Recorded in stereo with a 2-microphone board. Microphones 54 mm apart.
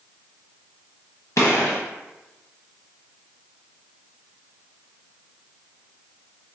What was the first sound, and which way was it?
A gunshot, 65° left (ahead or behind).